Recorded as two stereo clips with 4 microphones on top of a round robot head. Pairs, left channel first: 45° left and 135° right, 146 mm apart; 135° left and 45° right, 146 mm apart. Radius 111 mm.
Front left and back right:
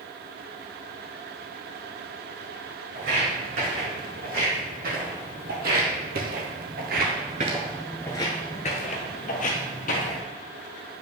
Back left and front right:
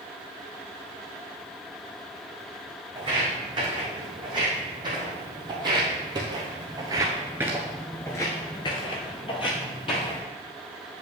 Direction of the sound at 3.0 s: 105° right.